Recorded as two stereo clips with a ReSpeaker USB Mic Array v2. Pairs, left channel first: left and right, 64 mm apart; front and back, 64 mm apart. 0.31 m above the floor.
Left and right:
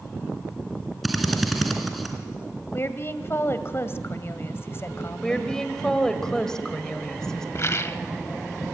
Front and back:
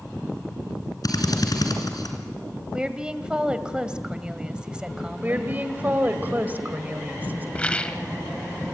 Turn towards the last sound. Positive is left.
turn(degrees=65)